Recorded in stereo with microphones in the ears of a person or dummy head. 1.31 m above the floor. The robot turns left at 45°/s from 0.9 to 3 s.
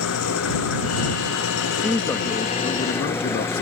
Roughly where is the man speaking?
Behind.